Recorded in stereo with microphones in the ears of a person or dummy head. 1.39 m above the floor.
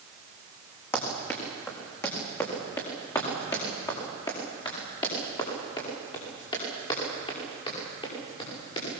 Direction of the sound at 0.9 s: 15° left (ahead or behind).